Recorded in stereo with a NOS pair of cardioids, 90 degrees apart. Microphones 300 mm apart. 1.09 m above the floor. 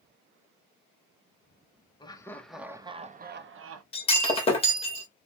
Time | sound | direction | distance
2.0 | laughter | 15° left | 0.9 m
3.9 | breaking glass | 20° left | 1.4 m